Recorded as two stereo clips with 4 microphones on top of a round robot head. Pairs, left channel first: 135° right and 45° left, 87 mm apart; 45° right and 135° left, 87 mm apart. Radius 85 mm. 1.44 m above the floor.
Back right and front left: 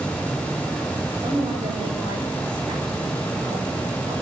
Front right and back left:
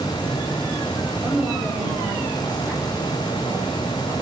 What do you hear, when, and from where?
1.2 s a woman speaking: 55° left, 8 m; by 4.1 s 75° left, 10 m